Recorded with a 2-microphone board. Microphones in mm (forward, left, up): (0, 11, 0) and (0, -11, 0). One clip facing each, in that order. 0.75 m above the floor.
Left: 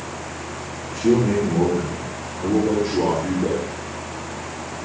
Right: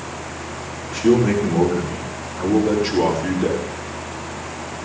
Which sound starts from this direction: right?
A man speaking, at 0.9 s.